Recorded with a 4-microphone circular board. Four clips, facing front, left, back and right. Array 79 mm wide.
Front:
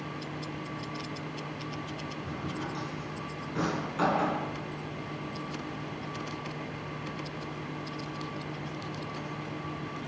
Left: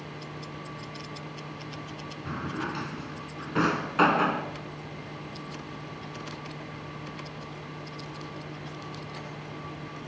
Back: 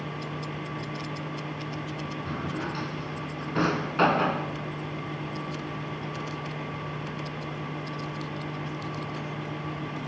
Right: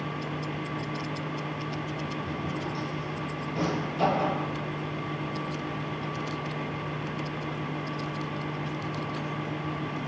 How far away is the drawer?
About 3 m.